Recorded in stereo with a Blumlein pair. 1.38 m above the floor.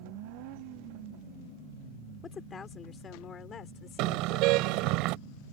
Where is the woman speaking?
20° left; by 5.0 s 30° left.